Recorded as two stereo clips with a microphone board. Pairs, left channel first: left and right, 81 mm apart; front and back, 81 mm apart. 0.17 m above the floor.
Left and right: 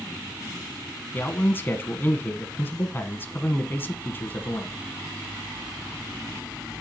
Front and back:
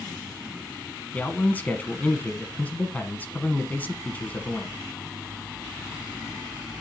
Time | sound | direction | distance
1.1 | a man speaking | 50° left | 1.2 m